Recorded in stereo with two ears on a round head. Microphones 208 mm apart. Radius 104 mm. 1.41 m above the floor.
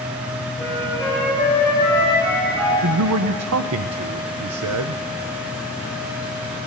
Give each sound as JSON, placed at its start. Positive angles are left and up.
{"t": 0.6, "sound": "a flute", "side_deg": 5, "distance_m": 6.0}
{"t": 2.8, "sound": "a man speaking", "side_deg": -70, "distance_m": 0.5}